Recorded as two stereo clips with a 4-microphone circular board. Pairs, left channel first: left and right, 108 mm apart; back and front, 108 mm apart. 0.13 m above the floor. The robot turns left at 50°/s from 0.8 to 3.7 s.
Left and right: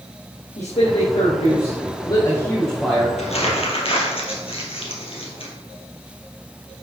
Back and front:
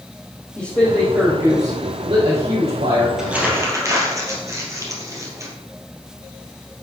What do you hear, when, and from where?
0.6 s a man speaking: 110° left, 3.5 m; by 3.1 s 5° right, 3.5 m
3.2 s crumpling: 85° left, 3 m; by 5.5 s 60° left, 3 m